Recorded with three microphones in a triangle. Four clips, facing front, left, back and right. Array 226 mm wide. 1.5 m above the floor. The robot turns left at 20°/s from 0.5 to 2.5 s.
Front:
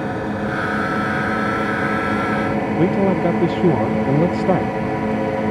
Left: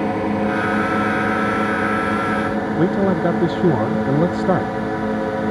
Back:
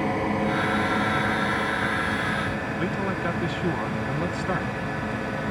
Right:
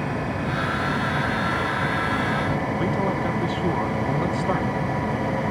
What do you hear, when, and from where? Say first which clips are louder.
0.0 s a drone: left 7 dB, front 2 dB; 80° left; by 5.5 s 40° left
2.8 s a man speaking: left 10 dB, front 13 dB; 35° left